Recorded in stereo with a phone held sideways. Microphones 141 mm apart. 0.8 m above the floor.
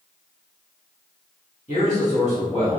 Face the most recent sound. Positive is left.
turn(degrees=50)  # may be behind; listen again after turning